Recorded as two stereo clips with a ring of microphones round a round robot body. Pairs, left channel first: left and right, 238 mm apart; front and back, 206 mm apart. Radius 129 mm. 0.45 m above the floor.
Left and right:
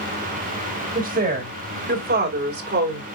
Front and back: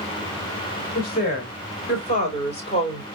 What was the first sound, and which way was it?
A woman speaking, 40° right.